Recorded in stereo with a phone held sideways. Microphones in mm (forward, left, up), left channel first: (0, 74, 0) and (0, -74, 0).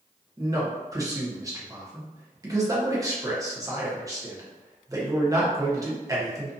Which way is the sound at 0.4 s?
25° right (ahead or behind).